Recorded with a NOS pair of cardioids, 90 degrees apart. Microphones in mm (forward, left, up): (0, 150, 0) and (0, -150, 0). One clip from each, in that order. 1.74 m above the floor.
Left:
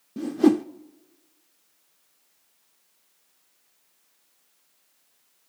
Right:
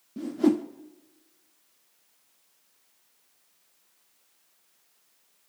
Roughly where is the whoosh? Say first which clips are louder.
Left 4 dB; ahead.